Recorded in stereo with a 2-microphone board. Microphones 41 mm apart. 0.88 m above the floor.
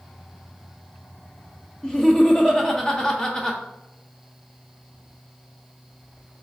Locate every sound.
1.8 s laughter: 15° left (ahead or behind), 0.6 m